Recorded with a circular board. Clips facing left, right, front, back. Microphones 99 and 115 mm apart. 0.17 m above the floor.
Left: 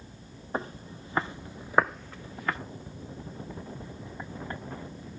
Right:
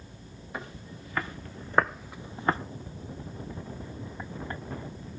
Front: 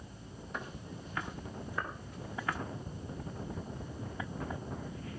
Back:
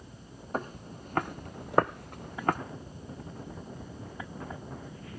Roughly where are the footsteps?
Behind left.